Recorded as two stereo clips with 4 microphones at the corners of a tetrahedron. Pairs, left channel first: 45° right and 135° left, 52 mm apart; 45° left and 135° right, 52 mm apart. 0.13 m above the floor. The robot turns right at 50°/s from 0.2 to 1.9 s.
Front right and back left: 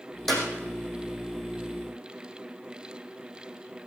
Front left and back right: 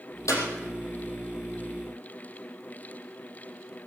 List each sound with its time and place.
0.3 s a clap: 40° left, 4.5 m; by 0.5 s 50° left, 4.5 m